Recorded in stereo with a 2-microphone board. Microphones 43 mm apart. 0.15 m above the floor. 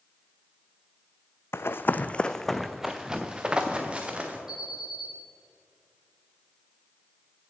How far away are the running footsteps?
About 0.6 m.